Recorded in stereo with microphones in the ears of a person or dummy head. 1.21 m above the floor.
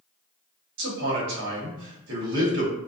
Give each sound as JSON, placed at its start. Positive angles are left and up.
{"t": 0.8, "sound": "a man speaking", "side_deg": -65, "distance_m": 1.0}